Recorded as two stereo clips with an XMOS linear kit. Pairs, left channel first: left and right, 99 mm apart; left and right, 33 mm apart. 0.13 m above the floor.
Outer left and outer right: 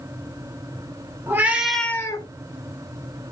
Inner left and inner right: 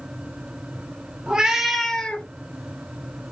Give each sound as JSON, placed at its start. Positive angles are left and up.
{"t": 1.3, "sound": "a cat meowing", "side_deg": -25, "distance_m": 1.0}